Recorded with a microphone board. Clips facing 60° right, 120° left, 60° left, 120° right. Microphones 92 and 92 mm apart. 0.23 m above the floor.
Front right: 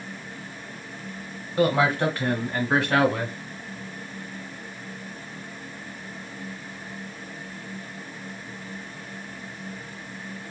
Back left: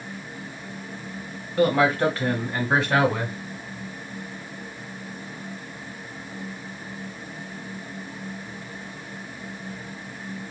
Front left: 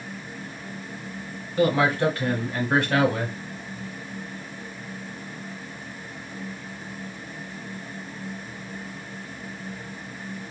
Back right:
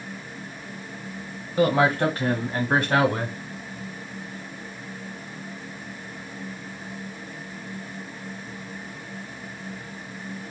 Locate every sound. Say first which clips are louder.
1.6 s a man speaking: back left 2 dB, back right 1 dB; 135° right, 1.0 m; by 3.4 s 175° right, 1.5 m